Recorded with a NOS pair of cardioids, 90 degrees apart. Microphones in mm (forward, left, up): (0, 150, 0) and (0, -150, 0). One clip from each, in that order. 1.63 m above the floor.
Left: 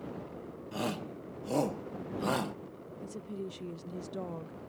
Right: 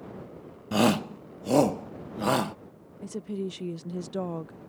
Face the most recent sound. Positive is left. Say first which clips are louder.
# right 7 dB
turn(degrees=-30)